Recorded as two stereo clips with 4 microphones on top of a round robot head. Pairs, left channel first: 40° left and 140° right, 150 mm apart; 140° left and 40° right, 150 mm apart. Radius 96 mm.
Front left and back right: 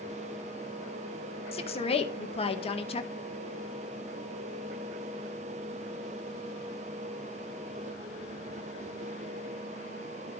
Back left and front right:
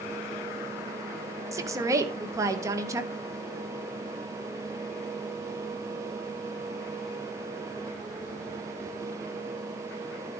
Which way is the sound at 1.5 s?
20° left.